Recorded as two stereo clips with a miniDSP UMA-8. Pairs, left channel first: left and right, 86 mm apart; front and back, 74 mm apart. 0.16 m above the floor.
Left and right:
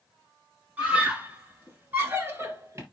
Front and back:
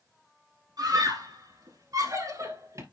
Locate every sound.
0.8 s a scream: 165° right, 4 m; by 2.8 s 145° right, 3.5 m